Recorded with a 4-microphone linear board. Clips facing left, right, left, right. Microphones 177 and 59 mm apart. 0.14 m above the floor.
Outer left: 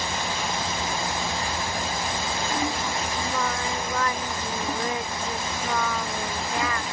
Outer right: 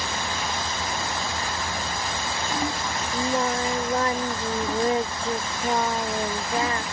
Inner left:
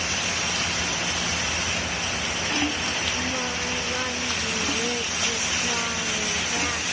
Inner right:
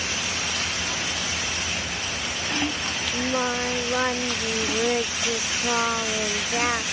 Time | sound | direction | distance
3.1 | singing | 30° right (ahead or behind) | ?